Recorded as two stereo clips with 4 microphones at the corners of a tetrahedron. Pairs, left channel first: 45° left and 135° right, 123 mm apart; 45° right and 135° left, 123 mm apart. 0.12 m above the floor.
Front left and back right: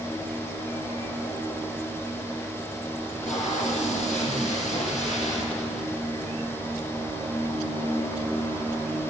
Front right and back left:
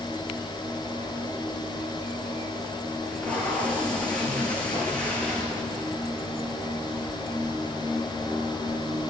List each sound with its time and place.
3.0 s tape being pulled: 35° left, 6 m